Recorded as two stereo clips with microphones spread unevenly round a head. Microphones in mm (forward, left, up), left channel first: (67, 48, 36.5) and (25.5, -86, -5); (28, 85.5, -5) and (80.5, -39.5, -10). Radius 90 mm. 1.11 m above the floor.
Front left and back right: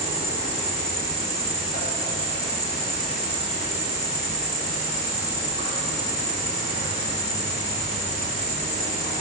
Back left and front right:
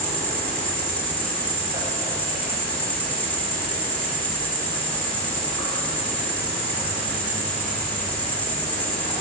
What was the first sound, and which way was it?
An insect, 35° left.